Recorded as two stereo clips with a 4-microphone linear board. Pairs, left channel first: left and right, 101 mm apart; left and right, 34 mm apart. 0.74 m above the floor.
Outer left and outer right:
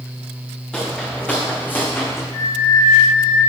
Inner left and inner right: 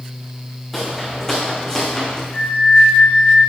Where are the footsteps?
5° left (ahead or behind), 2.5 m; by 2.2 s 25° left (ahead or behind), 1.9 m.